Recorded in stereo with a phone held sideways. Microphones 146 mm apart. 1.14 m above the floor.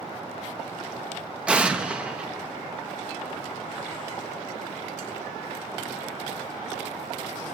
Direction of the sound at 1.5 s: 5° right (ahead or behind).